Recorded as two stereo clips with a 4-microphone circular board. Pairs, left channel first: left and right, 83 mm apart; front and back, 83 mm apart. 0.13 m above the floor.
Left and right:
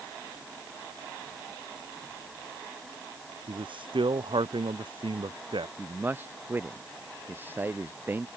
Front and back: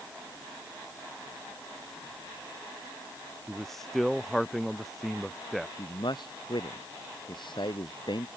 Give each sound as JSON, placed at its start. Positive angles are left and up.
{"t": 3.5, "sound": "a man speaking", "azimuth_deg": -85}
{"t": 5.8, "sound": "a man speaking", "azimuth_deg": -25}